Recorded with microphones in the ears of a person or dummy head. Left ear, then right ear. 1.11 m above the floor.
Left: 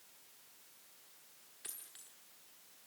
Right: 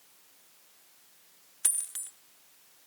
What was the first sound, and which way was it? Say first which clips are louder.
A dropped coin: right 18 dB; 35° right (ahead or behind).